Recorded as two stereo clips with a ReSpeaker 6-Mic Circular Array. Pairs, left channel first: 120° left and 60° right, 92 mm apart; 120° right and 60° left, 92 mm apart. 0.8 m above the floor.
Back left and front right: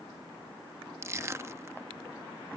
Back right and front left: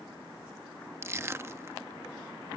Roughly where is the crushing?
Ahead.